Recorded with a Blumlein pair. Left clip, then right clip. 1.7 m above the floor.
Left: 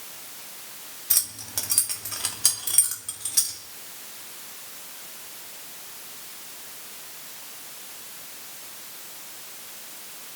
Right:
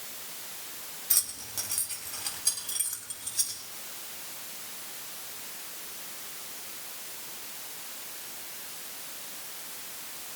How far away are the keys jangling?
About 2.5 m.